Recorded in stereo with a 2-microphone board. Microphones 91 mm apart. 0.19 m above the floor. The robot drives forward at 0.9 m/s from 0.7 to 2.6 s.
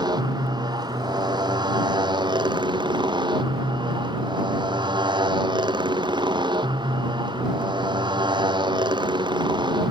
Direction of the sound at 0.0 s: 50° right (ahead or behind).